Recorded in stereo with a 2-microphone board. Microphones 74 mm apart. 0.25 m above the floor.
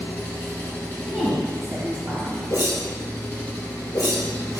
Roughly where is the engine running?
Left.